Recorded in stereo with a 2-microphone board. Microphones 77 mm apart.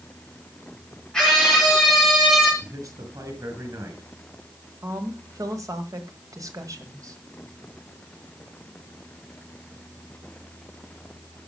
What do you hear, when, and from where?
1.1 s a scream: 10° left (ahead or behind), 5.5 m; by 2.5 s centre (ahead or behind), 7.5 m
2.6 s a man speaking: 50° right (ahead or behind), 4.5 m
4.8 s a woman speaking: 50° right (ahead or behind), 1.9 m